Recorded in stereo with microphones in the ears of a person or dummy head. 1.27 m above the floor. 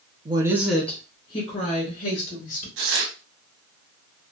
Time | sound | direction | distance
0.2 | a woman speaking | 25° right (ahead or behind) | 0.6 m
2.8 | tearing paper | 75° right (ahead or behind) | 0.8 m